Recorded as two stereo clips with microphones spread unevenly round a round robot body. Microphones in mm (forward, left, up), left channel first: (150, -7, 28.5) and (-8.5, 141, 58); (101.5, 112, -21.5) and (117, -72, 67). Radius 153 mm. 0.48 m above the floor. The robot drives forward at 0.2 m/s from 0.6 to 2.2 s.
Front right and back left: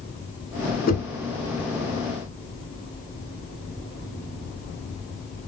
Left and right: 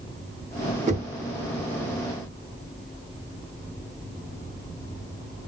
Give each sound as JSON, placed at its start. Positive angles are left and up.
{"t": 0.9, "sound": "knocking", "azimuth_deg": -15, "distance_m": 1.0}